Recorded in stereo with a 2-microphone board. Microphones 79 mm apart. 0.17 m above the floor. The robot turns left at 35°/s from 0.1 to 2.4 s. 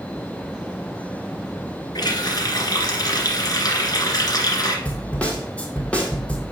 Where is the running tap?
60° left (ahead or behind), 1.6 m; by 4.8 s 55° left (ahead or behind), 1.6 m.